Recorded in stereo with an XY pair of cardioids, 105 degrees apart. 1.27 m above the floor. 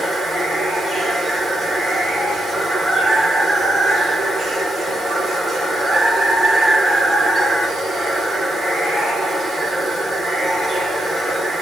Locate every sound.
0.0 s running water: 35° right, 1.6 m